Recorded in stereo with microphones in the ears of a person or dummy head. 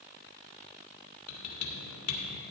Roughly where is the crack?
I don't hear a crack.